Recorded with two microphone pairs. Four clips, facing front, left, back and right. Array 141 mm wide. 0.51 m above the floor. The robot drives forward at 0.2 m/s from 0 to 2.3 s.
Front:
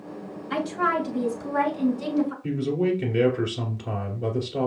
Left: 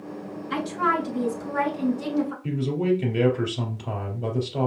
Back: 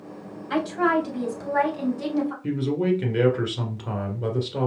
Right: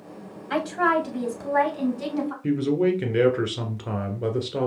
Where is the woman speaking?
120° right, 2.5 m; by 2.3 s 125° right, 3 m.